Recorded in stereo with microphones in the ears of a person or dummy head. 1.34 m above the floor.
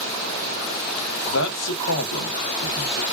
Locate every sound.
1.2 s a man speaking: 70° left (ahead or behind), 0.9 m